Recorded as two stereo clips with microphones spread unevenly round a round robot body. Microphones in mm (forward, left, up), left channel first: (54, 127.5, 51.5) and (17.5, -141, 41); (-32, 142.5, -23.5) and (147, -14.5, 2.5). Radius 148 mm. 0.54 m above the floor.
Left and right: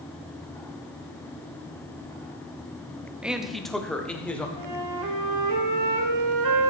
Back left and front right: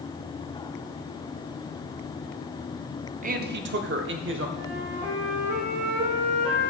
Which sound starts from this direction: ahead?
A man speaking, at 3.2 s.